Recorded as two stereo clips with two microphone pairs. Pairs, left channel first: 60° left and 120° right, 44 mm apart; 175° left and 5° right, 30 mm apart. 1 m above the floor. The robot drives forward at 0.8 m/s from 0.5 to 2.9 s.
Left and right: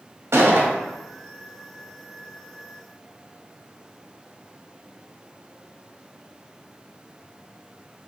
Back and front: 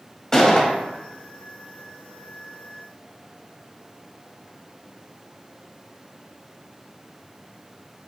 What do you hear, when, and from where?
0.3 s a gunshot: 110° right, 0.9 m; by 0.7 s 120° right, 1.0 m